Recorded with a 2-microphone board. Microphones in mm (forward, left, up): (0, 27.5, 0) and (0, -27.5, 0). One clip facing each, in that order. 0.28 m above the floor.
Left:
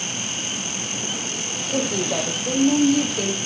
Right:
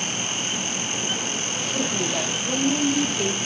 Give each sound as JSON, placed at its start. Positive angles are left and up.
{"t": 1.7, "sound": "a woman speaking", "side_deg": 65, "distance_m": 9.5}